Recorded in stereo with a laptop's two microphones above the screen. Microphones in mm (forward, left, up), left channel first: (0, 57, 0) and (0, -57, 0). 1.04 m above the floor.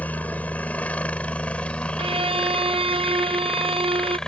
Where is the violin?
50° right (ahead or behind).